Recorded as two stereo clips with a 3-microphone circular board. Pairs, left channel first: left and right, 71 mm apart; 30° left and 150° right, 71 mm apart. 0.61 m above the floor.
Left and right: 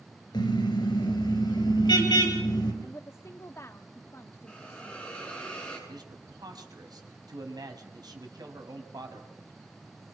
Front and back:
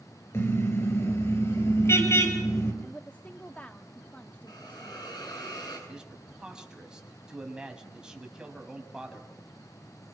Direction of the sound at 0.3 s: 85° left.